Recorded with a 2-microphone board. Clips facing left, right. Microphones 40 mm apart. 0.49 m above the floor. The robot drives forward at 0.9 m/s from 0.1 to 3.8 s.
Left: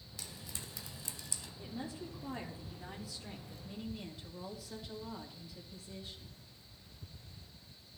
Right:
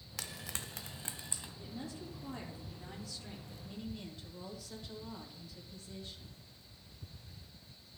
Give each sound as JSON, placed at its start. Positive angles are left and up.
{"t": 0.2, "sound": "frying", "side_deg": -80, "distance_m": 0.6}
{"t": 1.6, "sound": "a woman speaking", "side_deg": 15, "distance_m": 1.2}